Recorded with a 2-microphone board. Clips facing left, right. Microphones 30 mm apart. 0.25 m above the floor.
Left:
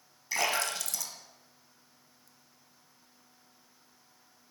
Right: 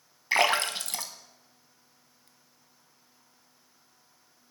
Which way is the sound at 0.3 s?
50° right (ahead or behind).